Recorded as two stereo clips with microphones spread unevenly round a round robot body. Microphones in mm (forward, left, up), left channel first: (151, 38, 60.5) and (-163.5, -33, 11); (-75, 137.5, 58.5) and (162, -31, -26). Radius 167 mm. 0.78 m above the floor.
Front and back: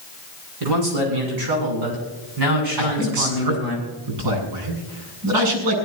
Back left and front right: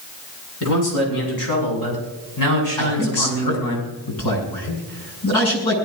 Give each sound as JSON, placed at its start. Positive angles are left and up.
{"t": 0.6, "sound": "a man speaking", "azimuth_deg": -170, "distance_m": 9.0}
{"t": 2.8, "sound": "a man speaking", "azimuth_deg": 175, "distance_m": 6.5}